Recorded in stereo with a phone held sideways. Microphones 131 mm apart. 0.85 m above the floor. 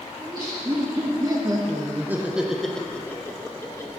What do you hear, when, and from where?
0.2 s laughter: 35° right (ahead or behind), 1.3 m; by 3.9 s 25° left (ahead or behind), 1.1 m